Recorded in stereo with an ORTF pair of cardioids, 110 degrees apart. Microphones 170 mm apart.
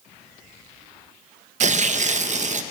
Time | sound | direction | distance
1.6 | tearing paper | 45° right | 0.6 m